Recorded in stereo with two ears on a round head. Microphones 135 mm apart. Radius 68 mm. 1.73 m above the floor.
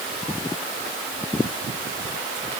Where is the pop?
No pop in this recording.